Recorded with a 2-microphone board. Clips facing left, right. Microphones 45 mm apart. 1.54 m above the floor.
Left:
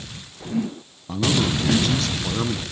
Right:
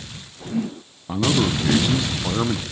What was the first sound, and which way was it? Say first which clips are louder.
A man speaking: right 1 dB; 20° right (ahead or behind).